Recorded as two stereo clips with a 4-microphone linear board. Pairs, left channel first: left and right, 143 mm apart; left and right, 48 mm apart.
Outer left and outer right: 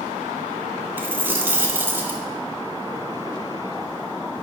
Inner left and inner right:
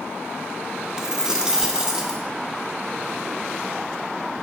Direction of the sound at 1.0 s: 15° right (ahead or behind).